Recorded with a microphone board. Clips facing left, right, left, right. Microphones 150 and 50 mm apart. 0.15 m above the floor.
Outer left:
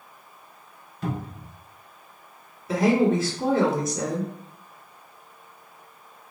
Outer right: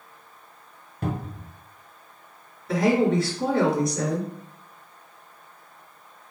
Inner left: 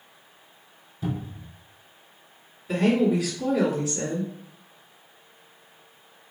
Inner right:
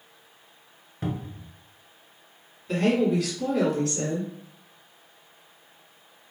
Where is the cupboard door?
55° right (ahead or behind), 0.8 m.